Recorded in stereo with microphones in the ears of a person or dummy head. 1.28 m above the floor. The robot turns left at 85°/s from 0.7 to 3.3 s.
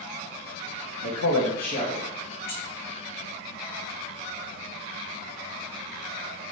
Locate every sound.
1.0 s a man speaking: 110° left, 0.8 m; by 2.0 s 20° left, 0.8 m
2.5 s keys jangling: 15° left (ahead or behind), 1.2 m; by 2.6 s 30° left (ahead or behind), 1.2 m